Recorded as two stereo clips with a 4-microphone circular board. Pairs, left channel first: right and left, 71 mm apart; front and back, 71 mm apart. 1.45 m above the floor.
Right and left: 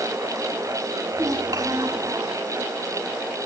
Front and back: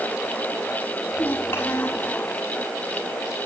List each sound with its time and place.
1.1 s a child speaking: 60° left, 6 m